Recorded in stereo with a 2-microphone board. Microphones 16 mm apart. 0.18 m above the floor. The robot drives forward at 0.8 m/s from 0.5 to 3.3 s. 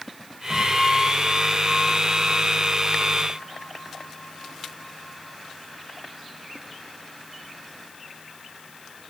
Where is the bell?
35° left (ahead or behind), 9 m; by 5.4 s 30° left (ahead or behind), 11 m.